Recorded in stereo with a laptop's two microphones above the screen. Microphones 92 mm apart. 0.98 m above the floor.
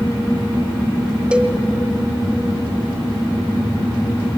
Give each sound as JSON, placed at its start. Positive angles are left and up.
{"t": 1.3, "sound": "a cowbell", "side_deg": -15, "distance_m": 0.8}